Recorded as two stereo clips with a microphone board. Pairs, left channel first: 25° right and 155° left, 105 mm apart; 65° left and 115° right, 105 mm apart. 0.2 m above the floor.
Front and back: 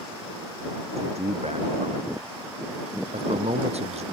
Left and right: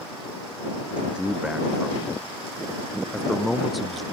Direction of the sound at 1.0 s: 165° left.